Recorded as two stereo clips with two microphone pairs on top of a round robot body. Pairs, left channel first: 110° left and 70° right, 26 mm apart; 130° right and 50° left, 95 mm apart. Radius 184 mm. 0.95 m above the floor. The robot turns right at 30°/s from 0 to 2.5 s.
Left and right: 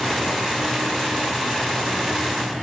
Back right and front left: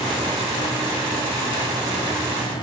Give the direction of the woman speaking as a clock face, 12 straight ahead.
I don't hear a woman speaking.